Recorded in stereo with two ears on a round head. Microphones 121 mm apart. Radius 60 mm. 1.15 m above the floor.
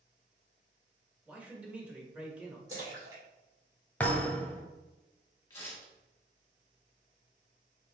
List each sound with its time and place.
1.2 s a man speaking: 10° right (ahead or behind), 1.3 m
2.7 s a splash: 30° right (ahead or behind), 2 m
4.0 s a thud: 10° left (ahead or behind), 1.0 m
5.5 s tearing paper: 20° left (ahead or behind), 1.6 m